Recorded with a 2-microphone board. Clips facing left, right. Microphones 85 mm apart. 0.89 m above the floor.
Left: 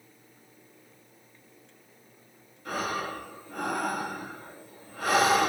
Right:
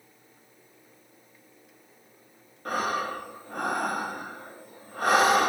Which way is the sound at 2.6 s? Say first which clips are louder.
Right 3 dB; 50° right (ahead or behind).